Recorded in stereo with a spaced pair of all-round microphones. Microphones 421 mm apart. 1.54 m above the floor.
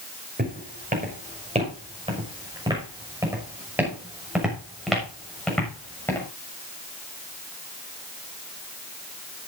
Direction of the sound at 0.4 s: 20° right (ahead or behind).